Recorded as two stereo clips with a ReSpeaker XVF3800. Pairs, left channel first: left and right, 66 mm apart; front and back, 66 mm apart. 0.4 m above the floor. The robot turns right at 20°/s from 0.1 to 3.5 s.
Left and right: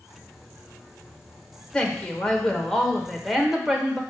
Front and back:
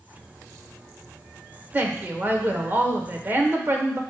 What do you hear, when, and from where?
1.7 s a woman speaking: 155° left, 1.1 m; by 4.0 s 170° right, 1.1 m